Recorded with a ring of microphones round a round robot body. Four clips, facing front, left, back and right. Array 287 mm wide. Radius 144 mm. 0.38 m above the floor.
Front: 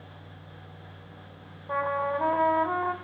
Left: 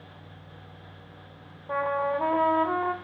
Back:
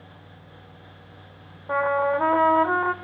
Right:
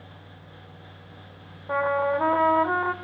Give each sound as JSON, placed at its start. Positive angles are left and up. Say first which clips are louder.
{"t": 1.7, "sound": "a trumpet", "louder": "right 3 dB, back 6 dB", "azimuth_deg": -155, "distance_m": 1.3}